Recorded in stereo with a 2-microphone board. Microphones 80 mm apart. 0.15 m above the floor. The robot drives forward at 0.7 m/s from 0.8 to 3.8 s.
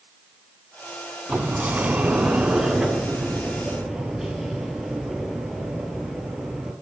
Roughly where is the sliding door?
Centre.